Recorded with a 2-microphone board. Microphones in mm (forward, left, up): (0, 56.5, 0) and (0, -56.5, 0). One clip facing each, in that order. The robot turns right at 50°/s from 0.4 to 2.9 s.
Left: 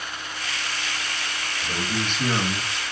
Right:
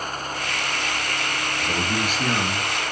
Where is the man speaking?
30° right, 2.0 m; by 2.7 s 25° left, 2.0 m.